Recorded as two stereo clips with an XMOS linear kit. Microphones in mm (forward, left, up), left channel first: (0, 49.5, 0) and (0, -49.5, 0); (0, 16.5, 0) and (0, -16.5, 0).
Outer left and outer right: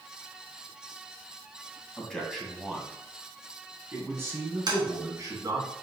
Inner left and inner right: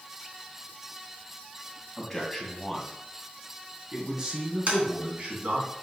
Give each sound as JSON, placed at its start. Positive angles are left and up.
{"t": 2.0, "sound": "a man speaking", "side_deg": 10, "distance_m": 2.0}
{"t": 4.7, "sound": "tapping", "side_deg": -45, "distance_m": 2.5}